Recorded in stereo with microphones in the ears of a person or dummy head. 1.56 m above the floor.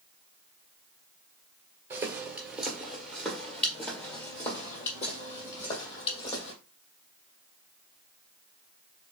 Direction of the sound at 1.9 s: 15° right (ahead or behind).